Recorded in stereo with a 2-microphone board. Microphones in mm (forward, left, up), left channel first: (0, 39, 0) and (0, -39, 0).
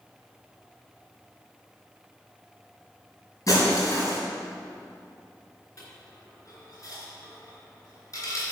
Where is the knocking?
No knocking in this recording.